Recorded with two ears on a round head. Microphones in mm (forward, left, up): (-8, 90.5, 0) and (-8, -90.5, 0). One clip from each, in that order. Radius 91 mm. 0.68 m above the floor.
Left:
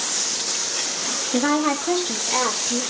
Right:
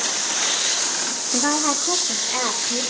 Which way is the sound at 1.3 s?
5° left (ahead or behind).